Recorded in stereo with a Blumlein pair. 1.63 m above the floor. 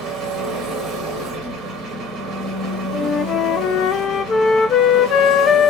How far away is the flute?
About 0.6 m.